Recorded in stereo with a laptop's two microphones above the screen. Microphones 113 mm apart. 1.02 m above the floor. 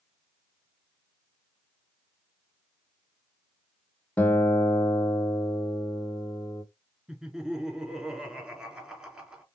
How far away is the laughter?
About 2.5 m.